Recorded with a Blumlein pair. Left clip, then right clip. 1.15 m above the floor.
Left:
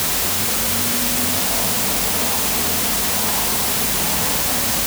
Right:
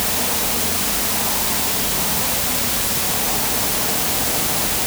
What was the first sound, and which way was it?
Only background noise.